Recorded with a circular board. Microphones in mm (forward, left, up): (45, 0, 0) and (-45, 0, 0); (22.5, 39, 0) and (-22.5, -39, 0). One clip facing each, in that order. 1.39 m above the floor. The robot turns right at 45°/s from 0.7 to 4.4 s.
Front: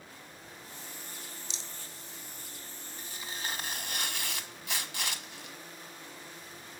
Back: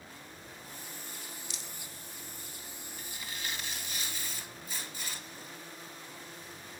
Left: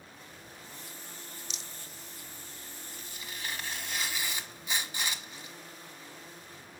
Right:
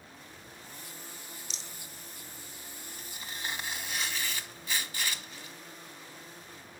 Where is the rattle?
65° right, 0.6 m; by 1.7 s 60° right, 0.6 m.